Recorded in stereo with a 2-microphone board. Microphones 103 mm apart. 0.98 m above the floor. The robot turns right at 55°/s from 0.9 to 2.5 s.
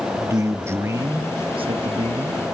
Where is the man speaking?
150° right, 1.0 m; by 2.4 s 70° right, 1.0 m.